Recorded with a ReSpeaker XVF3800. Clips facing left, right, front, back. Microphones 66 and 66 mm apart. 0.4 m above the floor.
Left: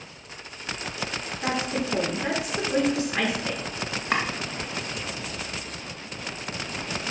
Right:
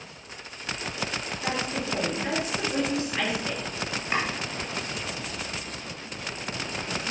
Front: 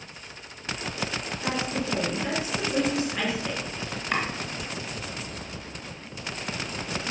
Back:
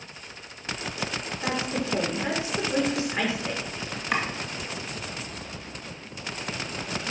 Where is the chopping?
95° left, 2.5 m.